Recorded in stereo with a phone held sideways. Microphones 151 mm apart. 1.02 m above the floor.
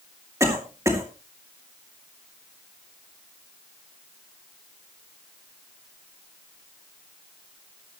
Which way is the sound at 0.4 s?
20° right (ahead or behind).